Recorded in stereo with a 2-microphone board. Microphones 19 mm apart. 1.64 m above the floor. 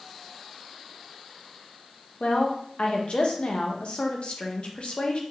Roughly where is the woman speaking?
Left.